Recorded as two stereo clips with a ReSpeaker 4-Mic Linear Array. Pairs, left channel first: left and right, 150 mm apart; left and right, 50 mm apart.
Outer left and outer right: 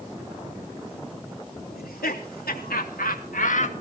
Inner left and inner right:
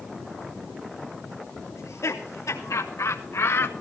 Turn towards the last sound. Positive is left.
turn(degrees=50)  # may be behind; listen again after turning